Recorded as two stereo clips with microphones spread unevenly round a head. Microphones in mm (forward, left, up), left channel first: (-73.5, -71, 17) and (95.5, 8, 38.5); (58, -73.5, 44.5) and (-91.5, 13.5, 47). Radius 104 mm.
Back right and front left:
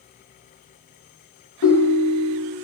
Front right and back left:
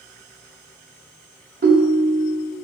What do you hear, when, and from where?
1.6 s a ringtone: straight behind, 0.8 m